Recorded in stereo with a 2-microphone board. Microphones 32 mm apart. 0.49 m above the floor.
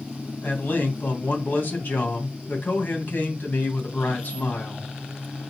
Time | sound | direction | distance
0.4 | a man speaking | 70° left (ahead or behind) | 2.5 m